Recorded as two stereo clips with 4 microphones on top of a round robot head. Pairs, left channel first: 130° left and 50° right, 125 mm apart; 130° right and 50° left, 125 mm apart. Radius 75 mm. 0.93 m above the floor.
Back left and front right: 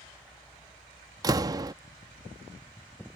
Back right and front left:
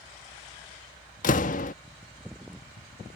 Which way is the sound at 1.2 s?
110° right.